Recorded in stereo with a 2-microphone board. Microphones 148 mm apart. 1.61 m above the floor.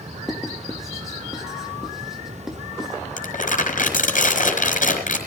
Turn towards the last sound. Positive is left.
turn(degrees=65)  # may be behind; listen again after turning